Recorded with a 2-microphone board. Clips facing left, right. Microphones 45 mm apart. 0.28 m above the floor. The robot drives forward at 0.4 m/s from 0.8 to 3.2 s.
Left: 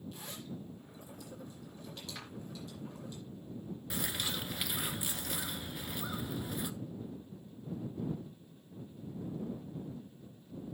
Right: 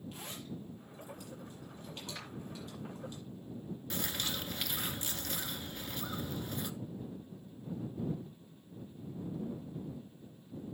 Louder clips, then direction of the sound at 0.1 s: Even; 40° right (ahead or behind).